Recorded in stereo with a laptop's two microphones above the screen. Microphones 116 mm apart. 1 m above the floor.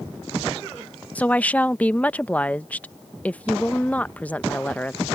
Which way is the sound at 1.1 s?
15° left (ahead or behind).